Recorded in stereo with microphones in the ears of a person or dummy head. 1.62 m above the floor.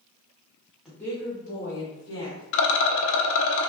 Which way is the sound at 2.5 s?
70° left (ahead or behind).